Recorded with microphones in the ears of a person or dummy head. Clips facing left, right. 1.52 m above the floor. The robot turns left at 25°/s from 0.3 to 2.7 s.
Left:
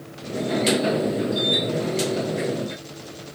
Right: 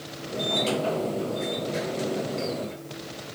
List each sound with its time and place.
Only background noise.